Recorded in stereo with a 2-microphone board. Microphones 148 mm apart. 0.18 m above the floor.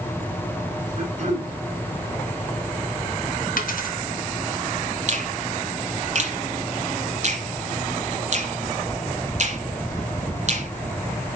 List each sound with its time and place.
1.0 s throat clearing: 50° right (ahead or behind), 3.5 m
3.6 s a dropped coin: 70° left (ahead or behind), 1.9 m
5.1 s a finger snap: 50° right (ahead or behind), 1.5 m